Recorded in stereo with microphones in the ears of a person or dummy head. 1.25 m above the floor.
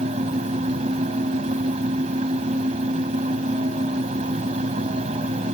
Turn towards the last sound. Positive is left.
turn(degrees=-40)  # may be behind; listen again after turning